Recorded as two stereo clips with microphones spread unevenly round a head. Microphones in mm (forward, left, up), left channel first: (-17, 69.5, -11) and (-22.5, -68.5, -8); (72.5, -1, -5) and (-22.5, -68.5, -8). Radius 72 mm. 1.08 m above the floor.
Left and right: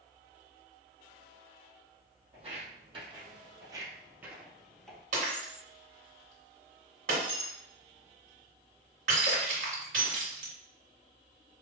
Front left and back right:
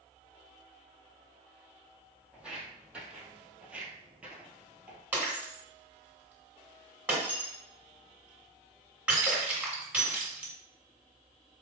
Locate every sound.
2.3 s footsteps: 65° right, 1.7 m; by 5.0 s 160° left, 1.1 m
5.1 s breaking glass: 70° right, 2.5 m